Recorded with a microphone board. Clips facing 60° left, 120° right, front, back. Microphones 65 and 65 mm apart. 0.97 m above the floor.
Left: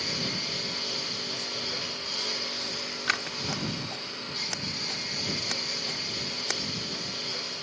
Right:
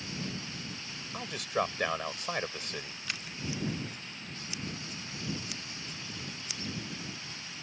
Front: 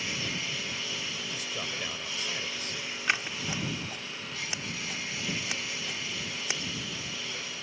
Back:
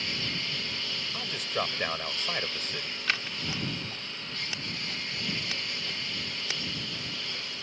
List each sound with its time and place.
0.0 s a lawn mower: 85° left
1.1 s a man speaking: 140° right
3.1 s scissors: 75° left